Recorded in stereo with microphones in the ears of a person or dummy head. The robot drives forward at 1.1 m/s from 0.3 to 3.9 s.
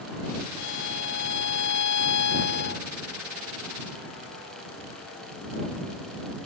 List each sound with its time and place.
0.6 s a violin: 70° left (ahead or behind); by 2.9 s 60° left (ahead or behind)